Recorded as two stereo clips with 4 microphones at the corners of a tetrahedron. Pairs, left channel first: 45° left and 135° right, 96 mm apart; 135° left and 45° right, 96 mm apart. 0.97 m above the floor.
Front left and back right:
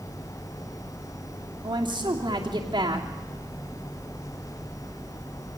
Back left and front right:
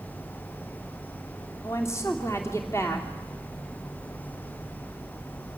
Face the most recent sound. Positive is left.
turn(degrees=-165)